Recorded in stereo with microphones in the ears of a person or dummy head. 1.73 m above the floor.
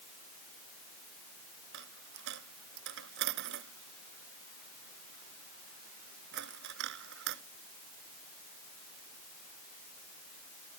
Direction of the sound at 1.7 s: 60° right (ahead or behind).